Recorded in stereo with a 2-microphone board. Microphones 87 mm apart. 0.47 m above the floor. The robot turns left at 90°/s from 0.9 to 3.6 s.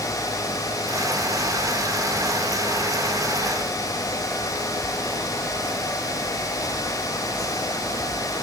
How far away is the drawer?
No drawer in this recording.